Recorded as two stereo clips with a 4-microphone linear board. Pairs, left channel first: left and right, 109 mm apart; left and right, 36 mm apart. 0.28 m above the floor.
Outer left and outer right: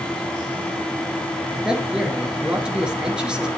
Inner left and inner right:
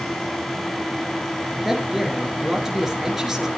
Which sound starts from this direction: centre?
A man speaking, at 1.6 s.